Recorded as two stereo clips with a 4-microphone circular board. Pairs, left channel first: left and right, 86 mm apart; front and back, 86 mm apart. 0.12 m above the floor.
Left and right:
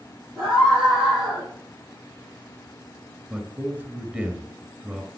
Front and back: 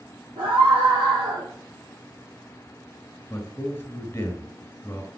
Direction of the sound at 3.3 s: 35° right.